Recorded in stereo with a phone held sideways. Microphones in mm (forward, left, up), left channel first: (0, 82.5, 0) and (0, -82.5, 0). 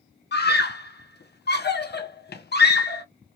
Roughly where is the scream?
Left.